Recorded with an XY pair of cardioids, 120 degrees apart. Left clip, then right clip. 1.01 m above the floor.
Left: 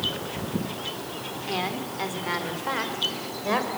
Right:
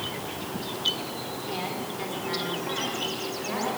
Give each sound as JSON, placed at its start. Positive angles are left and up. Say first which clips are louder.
{"t": 1.5, "sound": "a woman speaking", "louder": "left 5 dB", "azimuth_deg": 35, "distance_m": 3.5}